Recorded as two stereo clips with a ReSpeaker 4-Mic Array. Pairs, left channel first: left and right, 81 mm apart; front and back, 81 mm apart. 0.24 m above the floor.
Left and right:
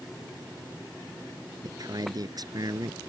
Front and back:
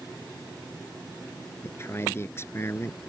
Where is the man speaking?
55° right.